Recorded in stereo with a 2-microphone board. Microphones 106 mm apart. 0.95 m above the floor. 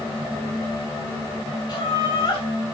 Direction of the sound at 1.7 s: 45° left (ahead or behind).